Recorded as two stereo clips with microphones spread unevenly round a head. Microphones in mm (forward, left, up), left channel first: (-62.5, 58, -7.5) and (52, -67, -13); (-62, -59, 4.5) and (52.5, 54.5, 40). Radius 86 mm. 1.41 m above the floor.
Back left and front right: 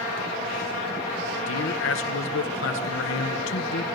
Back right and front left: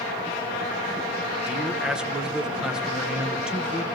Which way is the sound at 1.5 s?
130° left.